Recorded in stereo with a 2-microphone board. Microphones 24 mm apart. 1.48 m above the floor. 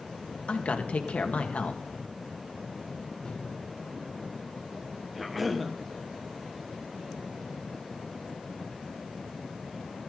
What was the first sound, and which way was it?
A man speaking, 65° left (ahead or behind).